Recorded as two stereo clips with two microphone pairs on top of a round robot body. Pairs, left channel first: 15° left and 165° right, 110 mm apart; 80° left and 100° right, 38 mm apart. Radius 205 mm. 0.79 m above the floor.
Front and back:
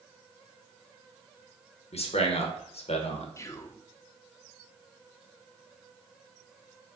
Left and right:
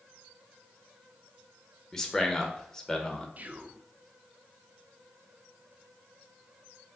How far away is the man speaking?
About 1.1 m.